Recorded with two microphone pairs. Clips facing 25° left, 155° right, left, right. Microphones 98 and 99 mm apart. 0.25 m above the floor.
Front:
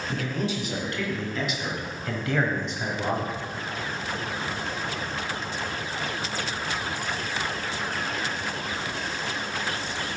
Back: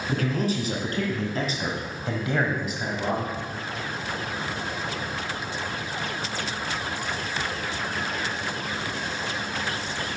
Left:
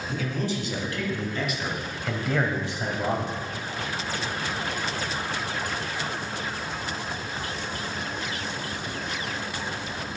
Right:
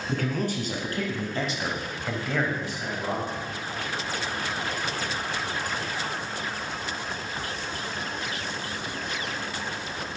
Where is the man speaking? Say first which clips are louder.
Back 4 dB, right 2 dB; 115° right, 2.5 m; by 3.4 s 100° left, 1.5 m.